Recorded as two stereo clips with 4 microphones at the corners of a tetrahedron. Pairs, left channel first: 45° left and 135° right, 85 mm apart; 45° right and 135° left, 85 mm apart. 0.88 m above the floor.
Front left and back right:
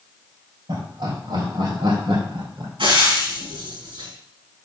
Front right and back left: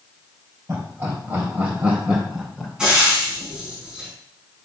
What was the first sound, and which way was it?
Laughter, 165° right.